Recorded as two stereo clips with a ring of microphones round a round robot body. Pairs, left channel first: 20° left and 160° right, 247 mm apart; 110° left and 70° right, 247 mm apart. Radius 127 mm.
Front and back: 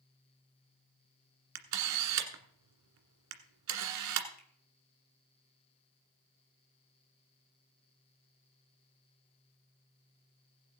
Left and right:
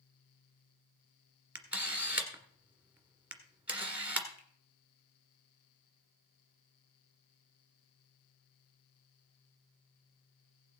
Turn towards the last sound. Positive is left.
turn(degrees=75)